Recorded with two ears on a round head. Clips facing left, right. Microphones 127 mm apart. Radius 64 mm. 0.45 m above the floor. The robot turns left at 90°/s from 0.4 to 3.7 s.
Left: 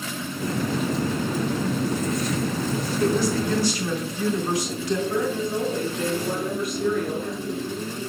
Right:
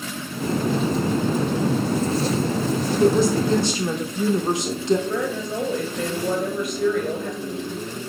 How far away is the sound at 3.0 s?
About 0.9 m.